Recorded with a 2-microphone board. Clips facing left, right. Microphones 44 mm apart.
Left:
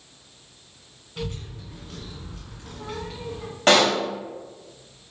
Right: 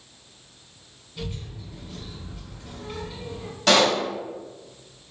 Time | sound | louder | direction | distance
1.2 | a child speaking | left 2 dB | 70° left (ahead or behind) | 2 m
3.7 | a pop | left 1 dB | 40° left (ahead or behind) | 2 m